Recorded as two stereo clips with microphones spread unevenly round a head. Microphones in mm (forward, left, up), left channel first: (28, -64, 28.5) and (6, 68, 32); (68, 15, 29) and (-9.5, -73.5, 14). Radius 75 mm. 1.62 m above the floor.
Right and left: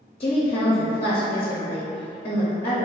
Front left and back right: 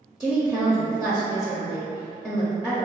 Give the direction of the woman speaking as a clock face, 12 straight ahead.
1 o'clock.